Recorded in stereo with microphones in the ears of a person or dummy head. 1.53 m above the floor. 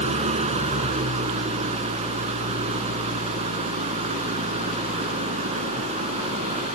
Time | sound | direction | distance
0.0 | an engine running | 35° right (ahead or behind) | ?